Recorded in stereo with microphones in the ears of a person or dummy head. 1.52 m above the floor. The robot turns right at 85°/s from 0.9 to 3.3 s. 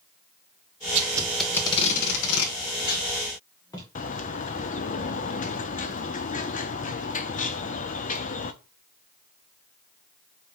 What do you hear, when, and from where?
0.9 s tape being pulled: 40° right (ahead or behind), 1.6 m; by 3.9 s 20° left (ahead or behind), 1.6 m
4.0 s a bird: 35° left (ahead or behind), 0.6 m